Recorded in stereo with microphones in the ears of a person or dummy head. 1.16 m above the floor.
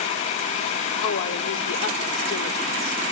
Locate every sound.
1.0 s a woman speaking: 85° left, 3 m